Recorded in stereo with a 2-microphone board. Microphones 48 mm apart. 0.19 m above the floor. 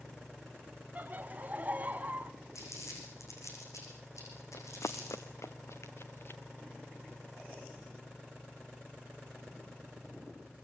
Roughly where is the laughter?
Right.